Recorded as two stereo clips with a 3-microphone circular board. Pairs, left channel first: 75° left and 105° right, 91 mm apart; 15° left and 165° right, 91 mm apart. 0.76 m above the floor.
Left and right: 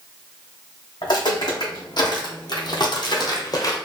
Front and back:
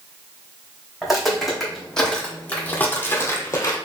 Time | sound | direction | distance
1.0 | footsteps | 110° left | 1.9 m